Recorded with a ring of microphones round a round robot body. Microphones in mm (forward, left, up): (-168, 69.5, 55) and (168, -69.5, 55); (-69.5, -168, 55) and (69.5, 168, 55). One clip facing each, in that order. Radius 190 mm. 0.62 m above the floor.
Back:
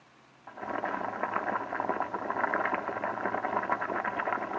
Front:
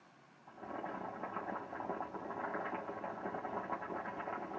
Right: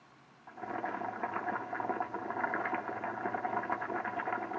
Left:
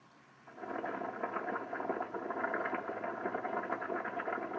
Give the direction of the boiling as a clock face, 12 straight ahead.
6 o'clock.